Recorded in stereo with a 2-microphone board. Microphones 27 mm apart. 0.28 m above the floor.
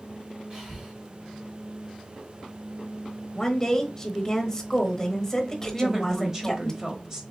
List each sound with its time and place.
0.5 s breathing: 30° right (ahead or behind), 1.9 m
3.4 s a woman speaking: 20° left (ahead or behind), 1.0 m
5.7 s a woman speaking: 15° right (ahead or behind), 1.2 m